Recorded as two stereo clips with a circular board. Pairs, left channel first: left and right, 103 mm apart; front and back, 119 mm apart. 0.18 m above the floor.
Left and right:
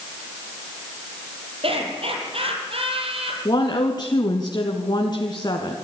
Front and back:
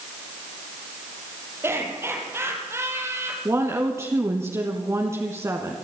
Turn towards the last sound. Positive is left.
turn(degrees=120)